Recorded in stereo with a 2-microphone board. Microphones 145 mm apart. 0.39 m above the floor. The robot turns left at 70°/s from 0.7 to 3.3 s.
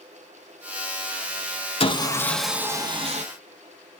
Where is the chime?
No chime in this recording.